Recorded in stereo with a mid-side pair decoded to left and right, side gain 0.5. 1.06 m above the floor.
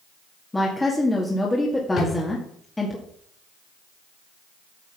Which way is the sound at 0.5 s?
15° left.